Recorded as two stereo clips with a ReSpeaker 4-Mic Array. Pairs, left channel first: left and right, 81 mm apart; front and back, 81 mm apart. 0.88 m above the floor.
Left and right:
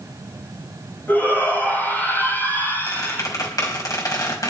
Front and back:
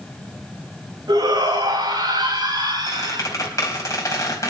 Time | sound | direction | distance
1.1 | a shout | 155° left | 5 m
2.9 | a squeak | 45° left | 4 m